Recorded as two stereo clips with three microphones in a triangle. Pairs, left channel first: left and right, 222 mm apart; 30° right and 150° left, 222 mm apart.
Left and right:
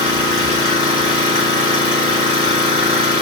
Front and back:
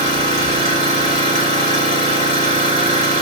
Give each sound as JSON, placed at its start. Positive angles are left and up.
{"t": 0.0, "sound": "an engine running", "azimuth_deg": -155, "distance_m": 2.5}